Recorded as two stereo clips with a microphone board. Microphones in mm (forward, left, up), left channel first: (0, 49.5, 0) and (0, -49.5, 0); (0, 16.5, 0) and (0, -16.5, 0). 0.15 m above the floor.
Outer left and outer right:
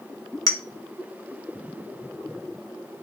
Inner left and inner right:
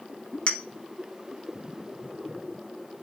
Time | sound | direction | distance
0.5 | a clink | 35° left (ahead or behind) | 1.1 m